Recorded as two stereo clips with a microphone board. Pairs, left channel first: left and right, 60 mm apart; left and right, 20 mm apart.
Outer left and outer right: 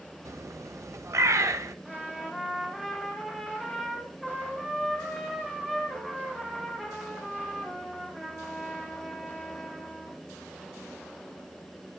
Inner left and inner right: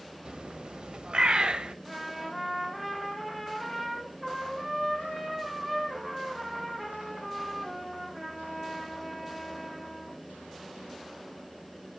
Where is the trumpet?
5° right (ahead or behind), 2.5 m.